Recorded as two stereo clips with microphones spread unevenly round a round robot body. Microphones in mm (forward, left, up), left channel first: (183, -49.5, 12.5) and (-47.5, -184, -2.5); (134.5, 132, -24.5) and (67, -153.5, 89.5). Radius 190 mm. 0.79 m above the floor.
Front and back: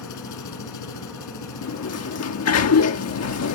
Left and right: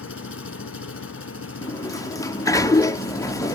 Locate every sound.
0.0 s an engine running: 30° left
1.6 s a sliding door: 10° left